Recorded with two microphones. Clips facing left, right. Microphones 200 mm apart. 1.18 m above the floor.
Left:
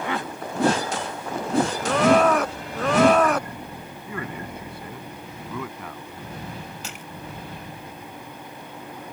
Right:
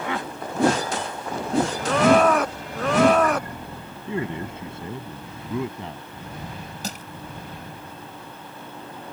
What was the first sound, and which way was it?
A man speaking, 25° right (ahead or behind).